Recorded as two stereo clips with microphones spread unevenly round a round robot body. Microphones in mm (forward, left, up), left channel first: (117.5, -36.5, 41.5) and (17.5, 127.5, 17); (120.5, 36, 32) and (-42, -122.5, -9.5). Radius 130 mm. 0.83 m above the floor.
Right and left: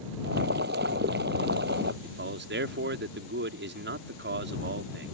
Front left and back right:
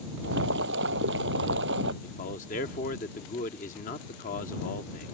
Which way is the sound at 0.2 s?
175° left.